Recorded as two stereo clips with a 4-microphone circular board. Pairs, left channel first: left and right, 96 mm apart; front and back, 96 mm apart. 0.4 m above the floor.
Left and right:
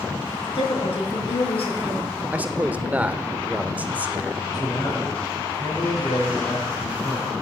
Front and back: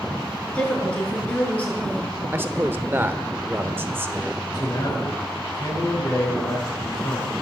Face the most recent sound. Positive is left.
turn(degrees=45)